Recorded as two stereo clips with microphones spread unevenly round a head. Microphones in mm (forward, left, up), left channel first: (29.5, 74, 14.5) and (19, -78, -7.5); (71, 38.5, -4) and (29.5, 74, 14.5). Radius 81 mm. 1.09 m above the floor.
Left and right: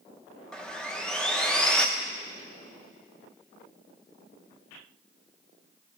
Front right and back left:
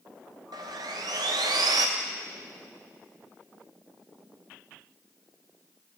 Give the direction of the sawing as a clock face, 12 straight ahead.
6 o'clock.